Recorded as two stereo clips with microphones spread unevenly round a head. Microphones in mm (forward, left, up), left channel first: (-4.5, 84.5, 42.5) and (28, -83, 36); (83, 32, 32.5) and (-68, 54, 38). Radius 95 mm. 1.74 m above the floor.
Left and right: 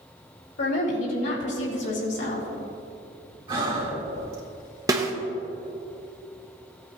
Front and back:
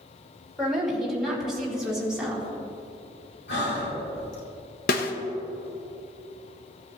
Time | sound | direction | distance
0.6 | a woman speaking | 85° left | 3.5 m
3.5 | breathing | 15° right | 3 m
4.9 | a snare drum | 10° right | 0.9 m